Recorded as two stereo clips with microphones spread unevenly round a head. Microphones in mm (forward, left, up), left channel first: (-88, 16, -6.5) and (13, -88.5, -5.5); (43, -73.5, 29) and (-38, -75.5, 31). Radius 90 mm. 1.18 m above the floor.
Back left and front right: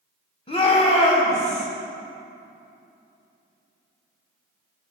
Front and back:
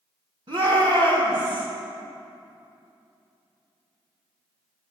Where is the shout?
Straight behind, 2.5 m; by 1.7 s 165° left, 2.5 m.